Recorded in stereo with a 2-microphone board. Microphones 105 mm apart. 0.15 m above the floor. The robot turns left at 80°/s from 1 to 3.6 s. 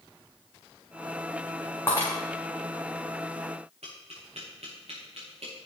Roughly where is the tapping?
Right.